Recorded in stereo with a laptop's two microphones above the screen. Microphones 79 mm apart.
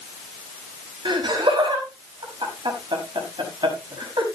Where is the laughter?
80° right, 5.5 m.